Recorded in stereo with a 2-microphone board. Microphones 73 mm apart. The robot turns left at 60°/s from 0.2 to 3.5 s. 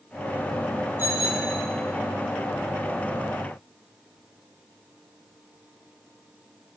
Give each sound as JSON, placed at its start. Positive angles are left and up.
{"t": 1.0, "sound": "a bicycle bell", "azimuth_deg": -150, "distance_m": 7.0}